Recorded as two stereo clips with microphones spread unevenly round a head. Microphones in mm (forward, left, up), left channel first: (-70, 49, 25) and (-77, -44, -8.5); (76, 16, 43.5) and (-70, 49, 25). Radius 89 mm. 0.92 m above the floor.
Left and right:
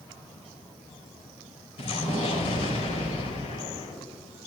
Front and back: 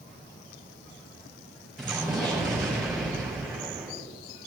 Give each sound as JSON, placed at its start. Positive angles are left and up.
{"t": 1.8, "sound": "an explosion", "azimuth_deg": 80, "distance_m": 4.5}